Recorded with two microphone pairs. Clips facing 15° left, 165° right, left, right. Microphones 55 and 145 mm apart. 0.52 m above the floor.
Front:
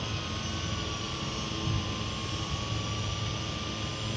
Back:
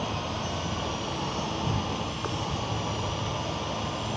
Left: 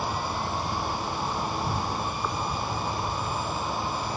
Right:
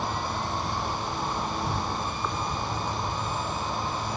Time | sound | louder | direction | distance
0.0 | an insect | back 5 dB, even | 175° left | ?